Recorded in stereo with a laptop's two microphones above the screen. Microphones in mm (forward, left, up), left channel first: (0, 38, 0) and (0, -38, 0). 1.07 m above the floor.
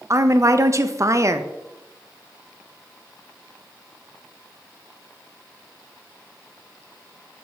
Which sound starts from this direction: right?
A woman speaking, at 0.1 s.